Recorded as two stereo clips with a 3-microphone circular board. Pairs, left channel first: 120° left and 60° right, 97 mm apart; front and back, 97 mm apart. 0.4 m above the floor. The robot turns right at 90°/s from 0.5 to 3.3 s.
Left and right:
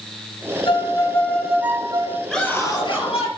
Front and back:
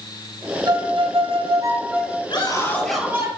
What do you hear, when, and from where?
0.7 s a violin: 140° left, 3 m; by 2.2 s 80° right, 3 m
2.3 s a scream: 30° left, 9 m; by 3.3 s 120° left, 9 m